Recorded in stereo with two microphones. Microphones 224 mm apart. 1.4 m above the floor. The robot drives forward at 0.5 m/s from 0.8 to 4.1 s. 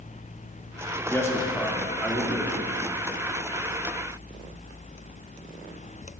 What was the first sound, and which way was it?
A man speaking, 10° left (ahead or behind).